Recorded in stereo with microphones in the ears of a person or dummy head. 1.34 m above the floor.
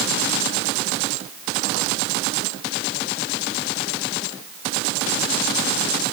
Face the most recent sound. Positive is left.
No sound to turn to.